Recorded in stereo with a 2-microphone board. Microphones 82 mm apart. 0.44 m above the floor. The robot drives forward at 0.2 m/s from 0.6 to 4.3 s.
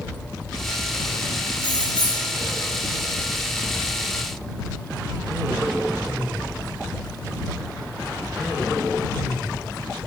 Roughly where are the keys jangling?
Left.